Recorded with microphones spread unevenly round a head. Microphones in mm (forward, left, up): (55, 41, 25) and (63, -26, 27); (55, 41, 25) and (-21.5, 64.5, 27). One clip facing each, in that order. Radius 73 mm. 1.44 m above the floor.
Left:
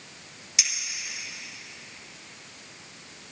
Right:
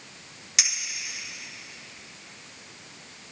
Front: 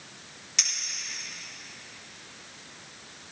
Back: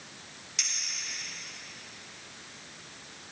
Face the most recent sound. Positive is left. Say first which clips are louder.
# right 2 dB, front 4 dB
turn(degrees=-60)